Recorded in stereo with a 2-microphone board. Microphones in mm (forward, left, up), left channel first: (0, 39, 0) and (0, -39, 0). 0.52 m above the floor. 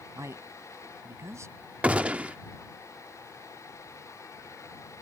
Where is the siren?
I don't hear a siren.